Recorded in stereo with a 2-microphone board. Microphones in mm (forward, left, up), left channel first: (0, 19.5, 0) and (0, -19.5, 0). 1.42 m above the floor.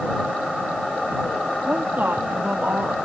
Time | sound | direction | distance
1.6 | a woman speaking | 55° right (ahead or behind) | ?